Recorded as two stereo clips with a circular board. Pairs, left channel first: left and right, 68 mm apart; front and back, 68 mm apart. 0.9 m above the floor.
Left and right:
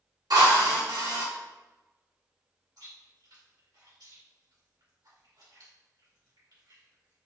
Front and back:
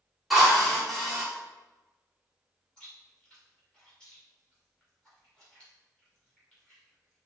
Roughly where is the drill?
Right.